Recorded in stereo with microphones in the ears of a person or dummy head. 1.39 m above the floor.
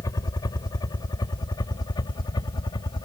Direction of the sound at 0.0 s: 15° left (ahead or behind).